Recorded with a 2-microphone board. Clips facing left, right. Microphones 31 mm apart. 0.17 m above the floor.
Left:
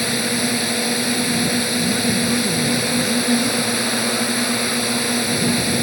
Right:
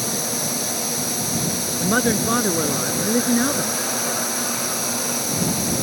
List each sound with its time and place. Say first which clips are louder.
0.0 s a drone: left 5 dB; 45° left (ahead or behind)
1.8 s a man speaking: left 1 dB; 55° right (ahead or behind)